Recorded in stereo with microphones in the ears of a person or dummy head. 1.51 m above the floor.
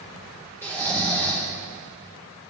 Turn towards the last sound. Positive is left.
turn(degrees=15)  # may be behind; listen again after turning